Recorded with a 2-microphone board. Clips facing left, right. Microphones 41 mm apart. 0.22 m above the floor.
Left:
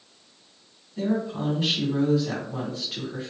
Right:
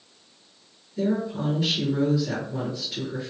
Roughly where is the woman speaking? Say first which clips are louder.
Right 1 dB; left.